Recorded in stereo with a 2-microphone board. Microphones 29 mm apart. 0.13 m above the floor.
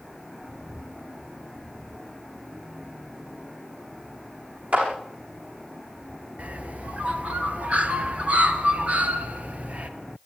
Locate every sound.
4.7 s a clap: 55° right (ahead or behind), 8 m
6.4 s a bird: 55° right (ahead or behind), 2.0 m